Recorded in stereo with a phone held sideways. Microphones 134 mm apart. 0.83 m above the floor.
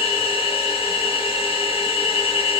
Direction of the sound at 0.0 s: 45° left (ahead or behind).